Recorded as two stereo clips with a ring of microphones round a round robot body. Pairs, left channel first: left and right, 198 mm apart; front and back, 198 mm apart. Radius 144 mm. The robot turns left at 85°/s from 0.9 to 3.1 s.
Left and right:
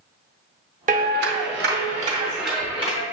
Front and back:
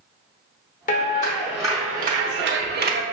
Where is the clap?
45° right, 0.7 m; by 3.0 s 135° left, 0.7 m.